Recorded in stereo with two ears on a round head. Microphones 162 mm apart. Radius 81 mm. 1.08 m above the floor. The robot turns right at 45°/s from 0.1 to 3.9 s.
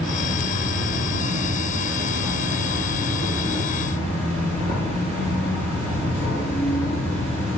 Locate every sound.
0.0 s an insect: 125° right, 9.5 m; by 7.6 s 45° left, 9.5 m